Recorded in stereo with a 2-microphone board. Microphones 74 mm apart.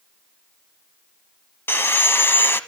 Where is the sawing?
30° left (ahead or behind), 0.9 m.